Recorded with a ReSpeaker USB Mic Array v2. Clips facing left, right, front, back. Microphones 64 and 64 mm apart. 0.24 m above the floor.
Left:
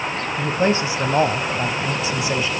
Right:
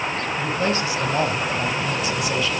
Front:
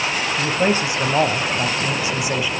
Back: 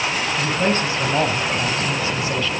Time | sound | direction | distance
0.4 | a man speaking | 60° left | 1.1 m